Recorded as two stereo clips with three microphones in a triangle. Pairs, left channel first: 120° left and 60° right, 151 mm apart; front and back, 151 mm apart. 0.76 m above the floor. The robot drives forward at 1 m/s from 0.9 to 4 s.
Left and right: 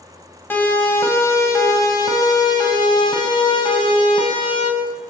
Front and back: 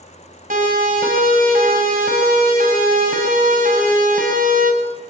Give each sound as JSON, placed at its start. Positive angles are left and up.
{"t": 0.5, "sound": "a siren", "azimuth_deg": -165, "distance_m": 6.5}